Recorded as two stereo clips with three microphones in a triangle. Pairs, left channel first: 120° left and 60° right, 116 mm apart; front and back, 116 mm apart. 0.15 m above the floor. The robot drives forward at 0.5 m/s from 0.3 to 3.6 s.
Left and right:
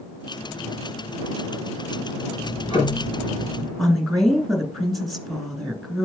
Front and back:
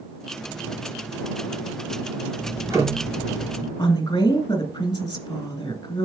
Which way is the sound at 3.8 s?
35° left.